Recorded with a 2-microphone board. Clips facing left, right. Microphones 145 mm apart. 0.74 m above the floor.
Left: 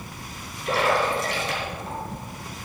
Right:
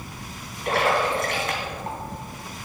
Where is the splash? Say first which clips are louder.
Even; 60° right (ahead or behind), 2.5 m.